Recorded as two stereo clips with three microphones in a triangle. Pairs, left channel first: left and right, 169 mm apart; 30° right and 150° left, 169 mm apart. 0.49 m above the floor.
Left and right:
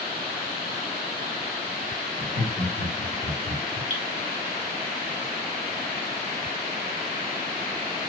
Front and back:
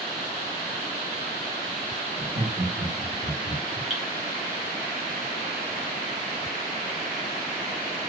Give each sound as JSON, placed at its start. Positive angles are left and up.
{"t": 2.2, "sound": "laughter", "azimuth_deg": -155, "distance_m": 2.0}
{"t": 3.9, "sound": "dripping", "azimuth_deg": -125, "distance_m": 1.2}